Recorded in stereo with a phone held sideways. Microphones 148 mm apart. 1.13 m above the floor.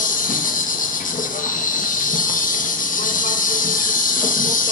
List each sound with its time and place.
0.0 s an insect: 75° left (ahead or behind), 1.2 m